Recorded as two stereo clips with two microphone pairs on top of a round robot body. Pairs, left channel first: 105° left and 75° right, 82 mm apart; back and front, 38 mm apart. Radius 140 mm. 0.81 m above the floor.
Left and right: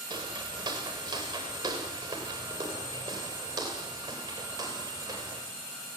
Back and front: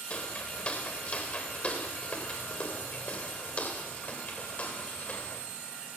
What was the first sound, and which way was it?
Footsteps, 125° right.